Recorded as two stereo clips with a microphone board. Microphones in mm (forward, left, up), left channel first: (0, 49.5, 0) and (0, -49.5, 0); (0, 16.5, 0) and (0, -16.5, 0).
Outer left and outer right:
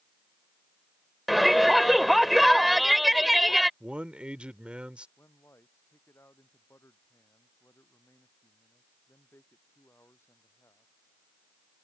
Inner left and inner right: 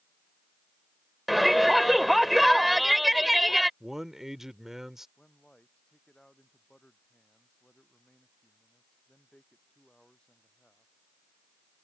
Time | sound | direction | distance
1.3 | a shout | centre (ahead or behind) | ?
3.8 | a man speaking | 10° right (ahead or behind) | ?
5.2 | a man speaking | 25° left (ahead or behind) | ?